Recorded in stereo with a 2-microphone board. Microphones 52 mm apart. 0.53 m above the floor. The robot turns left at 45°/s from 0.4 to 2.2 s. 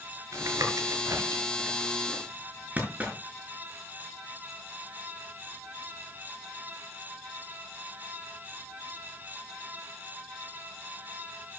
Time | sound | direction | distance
0.3 | tapping | 70° right (ahead or behind) | 5 m